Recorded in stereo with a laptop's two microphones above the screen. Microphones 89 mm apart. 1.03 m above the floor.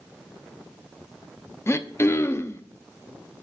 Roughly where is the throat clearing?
Left.